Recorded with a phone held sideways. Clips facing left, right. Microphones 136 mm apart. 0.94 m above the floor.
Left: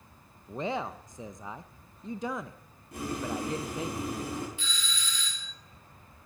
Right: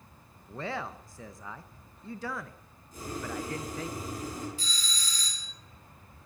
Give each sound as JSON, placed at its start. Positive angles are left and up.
{"t": 0.5, "sound": "a man speaking", "side_deg": 20, "distance_m": 0.5}
{"t": 2.9, "sound": "boiling", "side_deg": 70, "distance_m": 4.0}
{"t": 4.6, "sound": "a doorbell", "side_deg": -35, "distance_m": 0.9}